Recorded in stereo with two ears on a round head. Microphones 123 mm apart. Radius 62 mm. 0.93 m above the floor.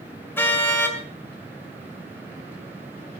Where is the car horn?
15° left (ahead or behind), 2.5 m.